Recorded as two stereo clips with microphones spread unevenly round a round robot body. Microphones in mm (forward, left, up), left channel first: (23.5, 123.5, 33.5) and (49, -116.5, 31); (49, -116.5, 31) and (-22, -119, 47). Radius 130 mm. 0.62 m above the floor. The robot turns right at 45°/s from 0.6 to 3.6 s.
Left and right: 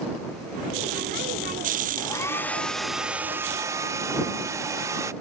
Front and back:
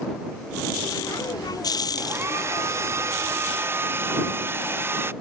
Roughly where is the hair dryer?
Behind left.